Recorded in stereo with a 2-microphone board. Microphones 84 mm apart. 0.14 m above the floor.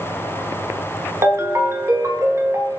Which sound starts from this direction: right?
A ringtone, at 1.2 s.